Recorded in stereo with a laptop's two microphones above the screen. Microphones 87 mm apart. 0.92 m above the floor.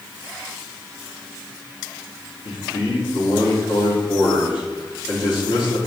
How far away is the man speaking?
About 2 m.